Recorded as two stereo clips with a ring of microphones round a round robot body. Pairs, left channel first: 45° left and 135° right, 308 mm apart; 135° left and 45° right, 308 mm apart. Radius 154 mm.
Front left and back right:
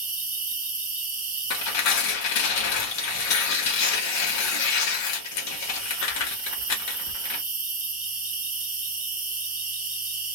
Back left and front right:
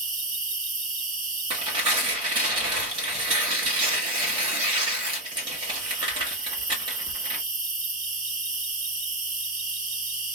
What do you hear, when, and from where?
0.0 s an insect: 90° right, 0.9 m
1.5 s tearing paper: 25° left, 1.3 m